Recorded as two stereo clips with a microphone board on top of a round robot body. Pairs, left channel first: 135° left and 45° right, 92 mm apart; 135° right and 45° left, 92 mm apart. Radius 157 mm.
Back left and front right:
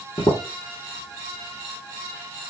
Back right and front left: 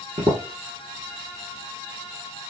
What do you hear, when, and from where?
0.2 s footsteps: 80° left, 1.4 m